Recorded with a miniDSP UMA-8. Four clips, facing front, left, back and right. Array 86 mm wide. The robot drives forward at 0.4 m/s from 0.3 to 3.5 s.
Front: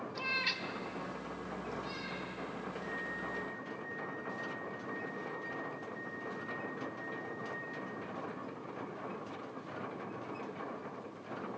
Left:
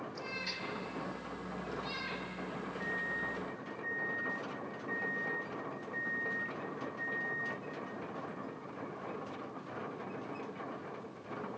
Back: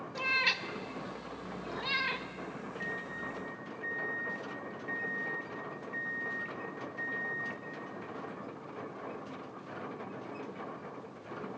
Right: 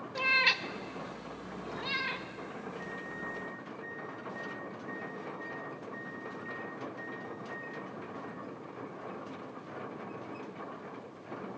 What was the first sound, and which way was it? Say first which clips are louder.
A cat meowing: right 11 dB, back 7 dB; 110° right.